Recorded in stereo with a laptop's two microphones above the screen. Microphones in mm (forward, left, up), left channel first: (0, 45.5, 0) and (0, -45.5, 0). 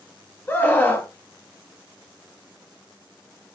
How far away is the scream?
About 1.9 m.